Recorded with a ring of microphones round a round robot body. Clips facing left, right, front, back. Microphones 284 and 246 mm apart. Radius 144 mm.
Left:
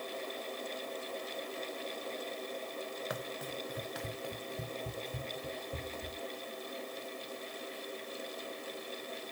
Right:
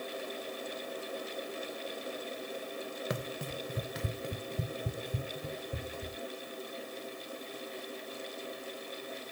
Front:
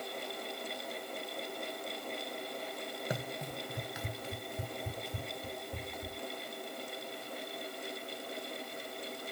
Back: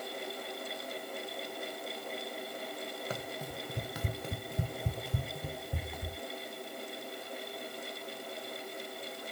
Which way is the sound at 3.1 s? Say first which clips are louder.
Right 3 dB, front 1 dB; 60° right.